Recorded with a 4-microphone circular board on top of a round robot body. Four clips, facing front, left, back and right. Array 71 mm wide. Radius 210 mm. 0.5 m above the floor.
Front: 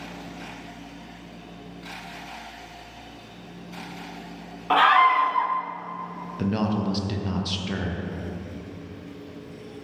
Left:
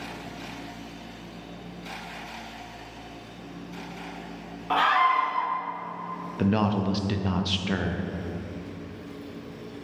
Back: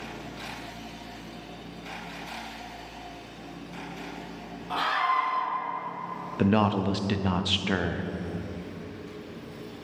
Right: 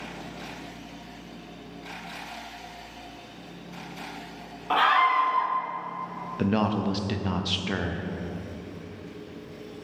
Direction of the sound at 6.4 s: Straight behind.